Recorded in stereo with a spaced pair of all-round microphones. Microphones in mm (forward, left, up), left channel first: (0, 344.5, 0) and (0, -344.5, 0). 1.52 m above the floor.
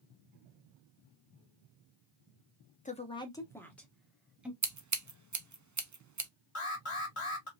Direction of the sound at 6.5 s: 45° left (ahead or behind).